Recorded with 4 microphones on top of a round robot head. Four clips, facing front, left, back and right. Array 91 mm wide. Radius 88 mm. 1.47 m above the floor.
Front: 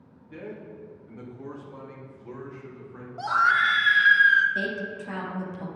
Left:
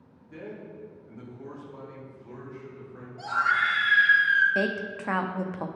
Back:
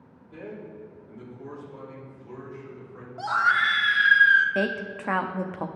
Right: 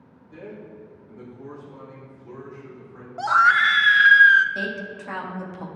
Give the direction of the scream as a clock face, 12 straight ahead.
3 o'clock.